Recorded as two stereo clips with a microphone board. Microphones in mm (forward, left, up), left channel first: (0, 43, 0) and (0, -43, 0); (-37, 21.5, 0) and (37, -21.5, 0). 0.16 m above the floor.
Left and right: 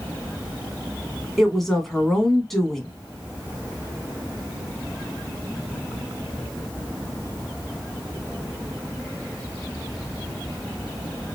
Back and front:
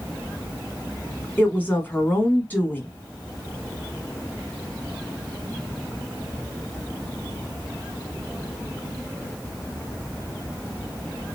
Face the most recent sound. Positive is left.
turn(degrees=175)